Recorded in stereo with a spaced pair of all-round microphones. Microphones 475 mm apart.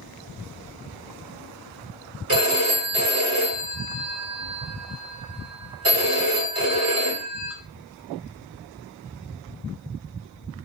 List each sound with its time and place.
2.3 s a phone ringing: 30° right (ahead or behind), 1.4 m